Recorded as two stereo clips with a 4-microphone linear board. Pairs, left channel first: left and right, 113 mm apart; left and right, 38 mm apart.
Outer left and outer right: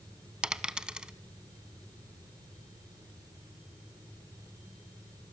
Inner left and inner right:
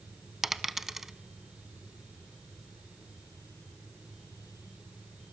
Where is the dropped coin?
10° right (ahead or behind), 0.7 m.